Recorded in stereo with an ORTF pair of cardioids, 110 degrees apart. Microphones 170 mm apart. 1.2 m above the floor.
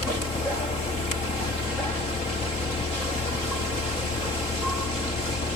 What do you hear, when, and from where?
0.0 s a fan: 35° left